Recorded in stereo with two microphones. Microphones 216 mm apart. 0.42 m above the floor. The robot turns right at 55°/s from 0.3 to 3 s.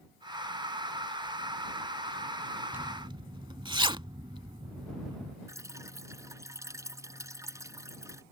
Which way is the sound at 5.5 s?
15° right (ahead or behind).